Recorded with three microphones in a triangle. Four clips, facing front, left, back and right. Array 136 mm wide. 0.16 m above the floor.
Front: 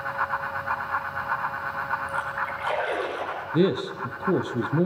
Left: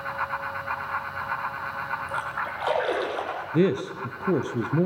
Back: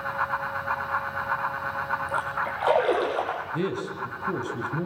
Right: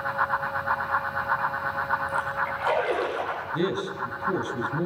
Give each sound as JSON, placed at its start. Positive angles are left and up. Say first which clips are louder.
{"t": 2.1, "sound": "a splash", "louder": "right 3 dB, back 1 dB", "azimuth_deg": 165, "distance_m": 5.5}
{"t": 3.5, "sound": "a man speaking", "louder": "left 6 dB, front 10 dB", "azimuth_deg": 45, "distance_m": 2.5}